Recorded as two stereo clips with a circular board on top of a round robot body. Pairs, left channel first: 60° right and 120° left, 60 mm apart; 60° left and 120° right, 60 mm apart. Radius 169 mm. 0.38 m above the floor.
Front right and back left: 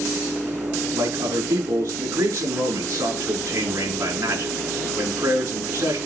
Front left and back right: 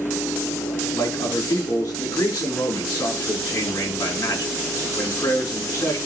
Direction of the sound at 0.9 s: 75° left.